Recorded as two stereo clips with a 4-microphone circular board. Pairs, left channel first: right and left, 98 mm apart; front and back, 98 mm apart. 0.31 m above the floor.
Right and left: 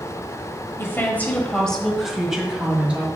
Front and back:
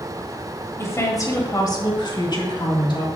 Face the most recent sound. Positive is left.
turn(degrees=15)